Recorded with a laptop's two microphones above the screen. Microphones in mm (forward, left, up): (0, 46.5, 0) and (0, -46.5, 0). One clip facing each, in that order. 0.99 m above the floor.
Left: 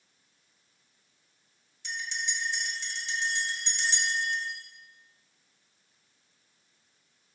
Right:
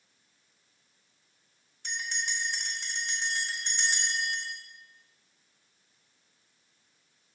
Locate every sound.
1.8 s a bell: 50° right (ahead or behind), 1.9 m